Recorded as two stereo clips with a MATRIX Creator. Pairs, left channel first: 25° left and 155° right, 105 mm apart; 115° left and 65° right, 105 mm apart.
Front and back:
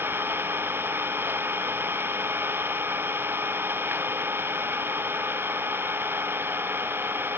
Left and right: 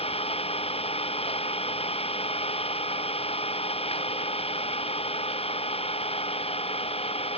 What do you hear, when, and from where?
0.0 s an engine running: 135° left